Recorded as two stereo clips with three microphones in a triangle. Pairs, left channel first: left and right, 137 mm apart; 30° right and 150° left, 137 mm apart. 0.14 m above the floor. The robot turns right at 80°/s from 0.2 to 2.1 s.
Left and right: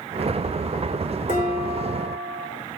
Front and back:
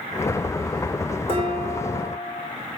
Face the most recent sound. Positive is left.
turn(degrees=165)